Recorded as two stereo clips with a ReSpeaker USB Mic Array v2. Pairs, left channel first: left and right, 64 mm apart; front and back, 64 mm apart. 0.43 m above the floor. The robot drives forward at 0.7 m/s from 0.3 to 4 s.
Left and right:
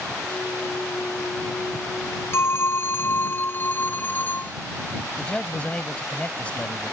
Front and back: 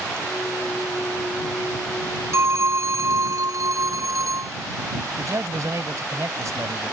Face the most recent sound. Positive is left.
turn(degrees=160)